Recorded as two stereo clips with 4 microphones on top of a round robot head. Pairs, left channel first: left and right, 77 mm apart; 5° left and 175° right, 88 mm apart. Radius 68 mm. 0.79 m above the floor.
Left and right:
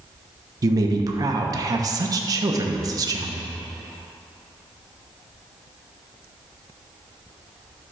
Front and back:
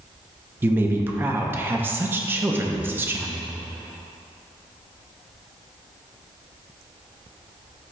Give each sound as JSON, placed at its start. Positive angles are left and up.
{"t": 0.6, "sound": "a woman speaking", "azimuth_deg": -115, "distance_m": 0.8}